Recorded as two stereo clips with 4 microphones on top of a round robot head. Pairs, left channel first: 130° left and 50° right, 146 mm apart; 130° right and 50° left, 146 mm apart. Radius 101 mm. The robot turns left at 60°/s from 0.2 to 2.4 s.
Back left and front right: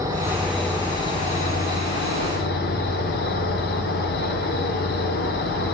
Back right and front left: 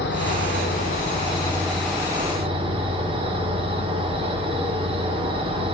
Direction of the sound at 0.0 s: 120° right.